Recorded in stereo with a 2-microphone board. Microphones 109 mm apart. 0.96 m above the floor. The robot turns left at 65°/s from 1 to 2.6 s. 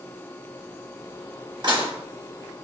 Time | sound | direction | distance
1.6 | dishes clattering | 45° right (ahead or behind) | 0.8 m